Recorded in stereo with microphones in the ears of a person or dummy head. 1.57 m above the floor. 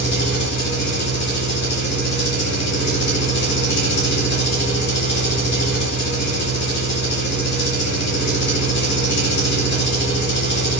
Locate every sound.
0.0 s an engine running: 55° left (ahead or behind), 3.5 m